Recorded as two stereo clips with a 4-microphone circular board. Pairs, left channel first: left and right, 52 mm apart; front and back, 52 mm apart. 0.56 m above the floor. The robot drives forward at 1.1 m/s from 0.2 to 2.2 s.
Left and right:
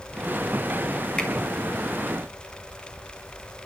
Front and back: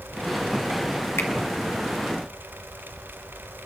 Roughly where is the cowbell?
I don't hear a cowbell.